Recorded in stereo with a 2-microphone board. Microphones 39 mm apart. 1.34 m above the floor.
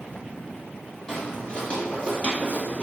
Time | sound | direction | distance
1.1 | footsteps | 15° left (ahead or behind) | 1.7 m